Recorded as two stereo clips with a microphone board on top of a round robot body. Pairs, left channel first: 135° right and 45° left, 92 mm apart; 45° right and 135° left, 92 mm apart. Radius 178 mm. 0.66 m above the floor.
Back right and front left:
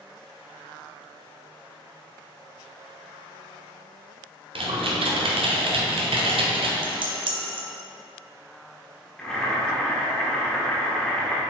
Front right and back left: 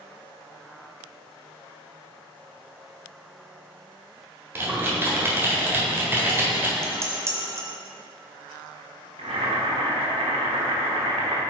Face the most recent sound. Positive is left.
turn(degrees=145)